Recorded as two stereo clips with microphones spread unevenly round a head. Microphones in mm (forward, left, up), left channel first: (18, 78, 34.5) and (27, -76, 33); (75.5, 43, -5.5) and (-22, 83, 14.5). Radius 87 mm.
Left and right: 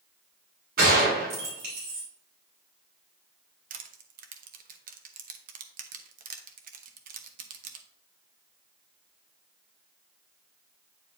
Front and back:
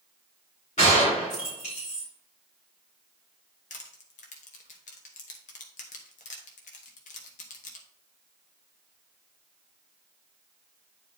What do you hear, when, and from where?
0.8 s a gunshot: 65° right, 4 m
3.7 s crushing: 55° right, 0.9 m